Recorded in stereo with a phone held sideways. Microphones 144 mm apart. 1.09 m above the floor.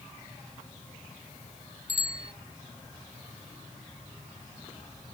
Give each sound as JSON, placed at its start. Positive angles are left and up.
{"t": 1.9, "sound": "a bicycle bell", "side_deg": 60}